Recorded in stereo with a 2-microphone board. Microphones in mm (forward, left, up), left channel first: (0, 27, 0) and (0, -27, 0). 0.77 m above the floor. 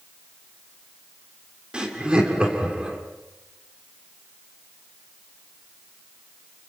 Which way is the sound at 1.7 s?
15° right (ahead or behind).